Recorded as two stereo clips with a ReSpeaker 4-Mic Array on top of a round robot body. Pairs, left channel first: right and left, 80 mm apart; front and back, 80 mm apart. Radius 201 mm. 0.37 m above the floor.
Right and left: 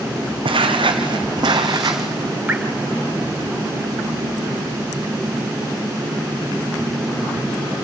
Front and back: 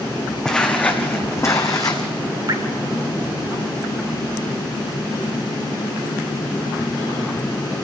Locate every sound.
0.5 s footsteps: 80° left, 1.5 m; by 2.1 s 40° left, 1.6 m
2.5 s dripping: 160° left, 2 m